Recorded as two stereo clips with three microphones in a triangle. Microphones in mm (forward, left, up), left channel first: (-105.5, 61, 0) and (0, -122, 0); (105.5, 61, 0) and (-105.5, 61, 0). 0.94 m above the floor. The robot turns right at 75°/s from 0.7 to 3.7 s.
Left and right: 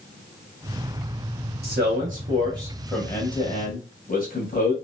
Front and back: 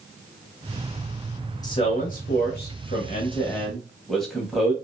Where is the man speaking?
65° right, 0.8 m; by 4.7 s 90° left, 0.8 m.